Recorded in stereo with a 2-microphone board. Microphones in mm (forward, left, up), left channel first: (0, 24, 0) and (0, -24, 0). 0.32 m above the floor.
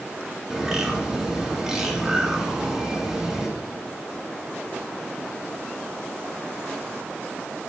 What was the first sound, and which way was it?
A bird, 10° right (ahead or behind).